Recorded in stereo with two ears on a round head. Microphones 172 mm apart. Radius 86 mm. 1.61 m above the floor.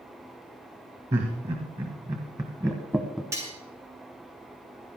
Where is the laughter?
35° right (ahead or behind), 1.9 m; by 3.2 s centre (ahead or behind), 0.9 m.